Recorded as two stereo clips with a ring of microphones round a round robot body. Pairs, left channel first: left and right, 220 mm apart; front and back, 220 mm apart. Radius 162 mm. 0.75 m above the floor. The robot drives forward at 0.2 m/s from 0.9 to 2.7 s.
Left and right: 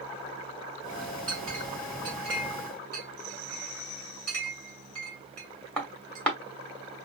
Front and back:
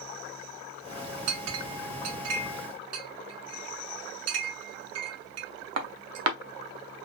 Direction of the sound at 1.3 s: 175° left.